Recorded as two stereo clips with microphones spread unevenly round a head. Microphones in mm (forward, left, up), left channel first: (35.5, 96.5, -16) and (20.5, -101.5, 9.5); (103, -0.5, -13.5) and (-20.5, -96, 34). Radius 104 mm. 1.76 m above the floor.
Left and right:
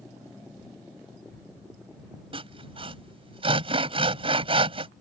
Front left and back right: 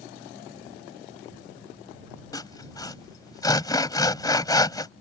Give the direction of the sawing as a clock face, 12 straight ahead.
1 o'clock.